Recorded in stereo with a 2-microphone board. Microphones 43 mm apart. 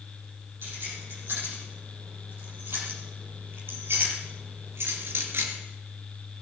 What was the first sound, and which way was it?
Keys jangling, 60° right (ahead or behind).